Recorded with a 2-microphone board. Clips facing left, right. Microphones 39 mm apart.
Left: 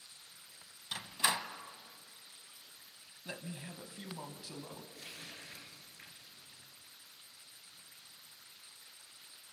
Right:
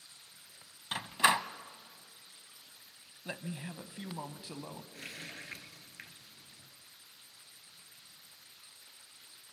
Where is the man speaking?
20° right (ahead or behind), 1.2 m.